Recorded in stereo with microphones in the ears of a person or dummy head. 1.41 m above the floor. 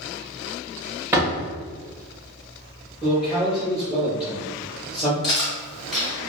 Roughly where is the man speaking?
Centre.